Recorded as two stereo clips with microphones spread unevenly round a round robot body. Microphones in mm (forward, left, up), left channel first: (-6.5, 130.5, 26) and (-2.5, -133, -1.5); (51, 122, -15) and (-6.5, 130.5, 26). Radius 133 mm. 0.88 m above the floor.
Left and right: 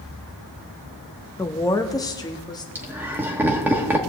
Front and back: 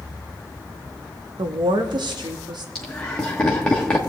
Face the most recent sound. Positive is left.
turn(degrees=-15)